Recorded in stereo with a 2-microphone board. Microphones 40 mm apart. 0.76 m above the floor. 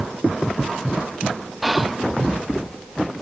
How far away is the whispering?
About 0.5 m.